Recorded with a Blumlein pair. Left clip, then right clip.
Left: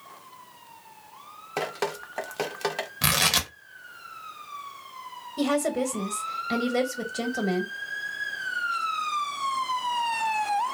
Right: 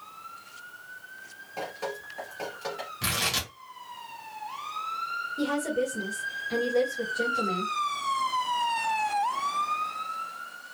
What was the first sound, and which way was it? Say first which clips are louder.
Dripping: left 5 dB; 50° left.